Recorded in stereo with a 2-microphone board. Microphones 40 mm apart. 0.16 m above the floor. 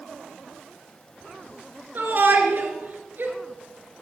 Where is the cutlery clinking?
No cutlery clinking in this recording.